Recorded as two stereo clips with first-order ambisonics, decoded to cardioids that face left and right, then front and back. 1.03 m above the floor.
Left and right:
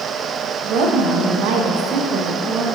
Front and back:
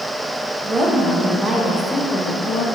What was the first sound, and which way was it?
A woman speaking, 115° right.